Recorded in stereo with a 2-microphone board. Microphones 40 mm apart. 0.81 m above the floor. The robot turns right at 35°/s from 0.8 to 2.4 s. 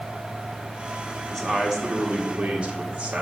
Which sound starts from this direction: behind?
A man speaking, at 1.3 s.